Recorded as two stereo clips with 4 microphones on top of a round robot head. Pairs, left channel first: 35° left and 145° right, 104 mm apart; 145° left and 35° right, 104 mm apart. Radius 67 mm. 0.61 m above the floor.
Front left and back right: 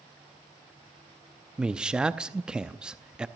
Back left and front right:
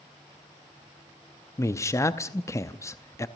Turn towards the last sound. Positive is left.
turn(degrees=145)